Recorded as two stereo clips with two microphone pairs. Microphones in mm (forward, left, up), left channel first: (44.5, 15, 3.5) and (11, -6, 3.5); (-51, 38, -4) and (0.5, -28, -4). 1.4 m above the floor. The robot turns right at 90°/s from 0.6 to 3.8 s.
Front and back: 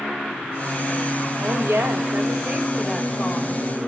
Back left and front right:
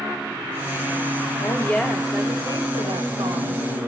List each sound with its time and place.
1.4 s a woman speaking: 170° left, 1.9 m; by 3.6 s 10° left, 1.9 m